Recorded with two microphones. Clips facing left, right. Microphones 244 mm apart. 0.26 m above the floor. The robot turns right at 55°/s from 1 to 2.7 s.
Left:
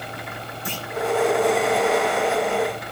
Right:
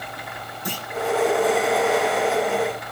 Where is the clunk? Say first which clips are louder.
Right 2 dB; 15° right (ahead or behind), 3.5 m.